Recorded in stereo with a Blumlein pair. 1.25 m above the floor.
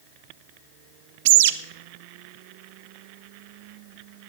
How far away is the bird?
About 0.5 m.